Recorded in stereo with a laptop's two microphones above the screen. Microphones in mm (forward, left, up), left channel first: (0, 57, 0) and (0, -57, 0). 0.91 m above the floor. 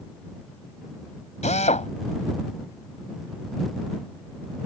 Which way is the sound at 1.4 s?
85° left.